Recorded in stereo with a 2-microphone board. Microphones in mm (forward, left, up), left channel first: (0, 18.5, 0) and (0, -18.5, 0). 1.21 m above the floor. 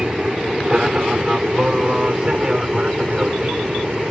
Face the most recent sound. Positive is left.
turn(degrees=-25)  # may be behind; listen again after turning